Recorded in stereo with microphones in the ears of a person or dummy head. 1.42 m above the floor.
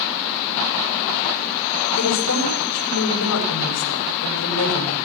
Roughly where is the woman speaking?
Left.